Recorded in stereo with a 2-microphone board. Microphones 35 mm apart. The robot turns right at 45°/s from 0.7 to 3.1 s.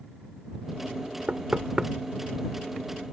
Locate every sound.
1.3 s knocking: 40° right (ahead or behind); by 1.9 s 15° right (ahead or behind)